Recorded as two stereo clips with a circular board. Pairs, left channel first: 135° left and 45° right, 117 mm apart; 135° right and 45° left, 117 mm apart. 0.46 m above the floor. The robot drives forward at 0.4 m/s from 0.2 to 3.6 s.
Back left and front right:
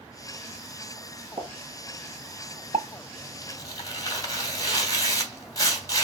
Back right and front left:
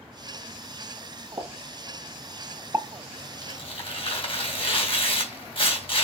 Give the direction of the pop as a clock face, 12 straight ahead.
12 o'clock.